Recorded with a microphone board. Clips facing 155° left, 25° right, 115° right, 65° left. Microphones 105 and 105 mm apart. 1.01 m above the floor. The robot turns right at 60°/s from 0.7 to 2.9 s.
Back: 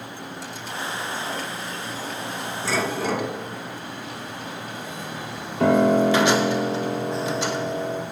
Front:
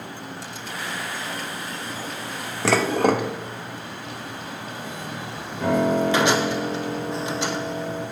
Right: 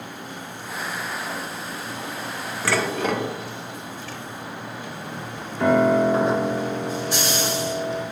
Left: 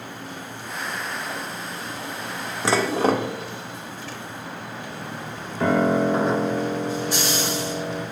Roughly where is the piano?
Behind left.